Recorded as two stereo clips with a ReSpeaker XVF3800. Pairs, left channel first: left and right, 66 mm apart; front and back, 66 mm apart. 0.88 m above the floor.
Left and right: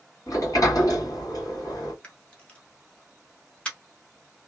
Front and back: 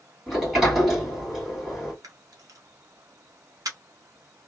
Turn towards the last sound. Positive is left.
turn(degrees=160)